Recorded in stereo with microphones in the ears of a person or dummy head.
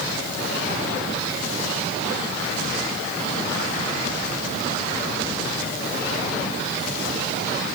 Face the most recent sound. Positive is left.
No sound to turn to.